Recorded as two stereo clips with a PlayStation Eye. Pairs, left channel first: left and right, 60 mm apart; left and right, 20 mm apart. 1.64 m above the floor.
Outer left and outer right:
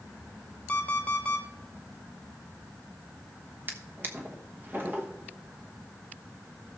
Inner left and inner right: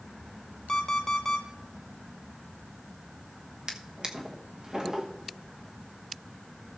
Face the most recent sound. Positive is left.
turn(degrees=-35)  # may be behind; listen again after turning